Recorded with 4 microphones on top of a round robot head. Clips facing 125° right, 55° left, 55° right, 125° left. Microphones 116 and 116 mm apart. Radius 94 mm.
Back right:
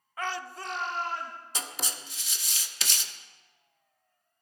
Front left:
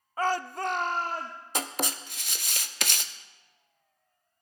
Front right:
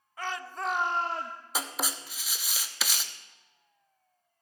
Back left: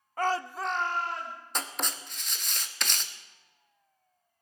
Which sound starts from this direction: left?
A shout, at 0.2 s.